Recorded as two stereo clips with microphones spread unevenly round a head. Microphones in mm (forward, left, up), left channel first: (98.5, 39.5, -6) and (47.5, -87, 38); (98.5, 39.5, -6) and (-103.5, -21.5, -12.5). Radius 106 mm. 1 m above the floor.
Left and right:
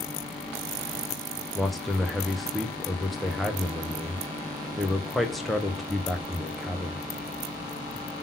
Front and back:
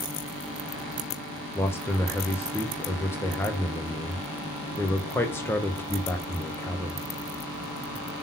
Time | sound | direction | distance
1.6 | a man speaking | 80° left | 0.8 m